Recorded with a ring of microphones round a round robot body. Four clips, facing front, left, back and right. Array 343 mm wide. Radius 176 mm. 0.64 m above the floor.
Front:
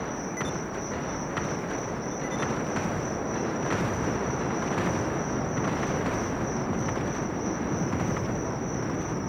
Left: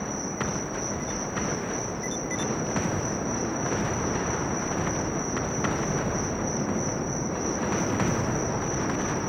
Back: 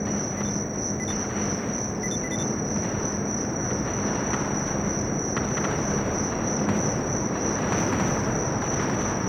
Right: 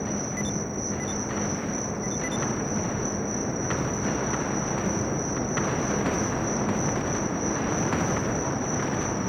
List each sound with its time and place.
0.0 s an insect: 155° right